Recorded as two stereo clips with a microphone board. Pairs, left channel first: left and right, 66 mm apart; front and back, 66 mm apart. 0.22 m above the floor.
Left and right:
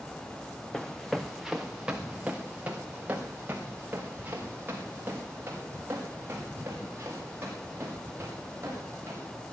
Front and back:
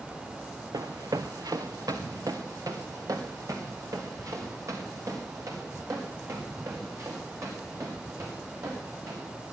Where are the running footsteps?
170° left, 1.2 m; by 9.3 s 140° right, 8 m.